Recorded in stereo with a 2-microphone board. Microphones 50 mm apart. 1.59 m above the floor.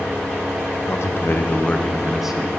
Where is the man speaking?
65° left (ahead or behind), 1.0 m; by 2.5 s 15° right (ahead or behind), 1.1 m.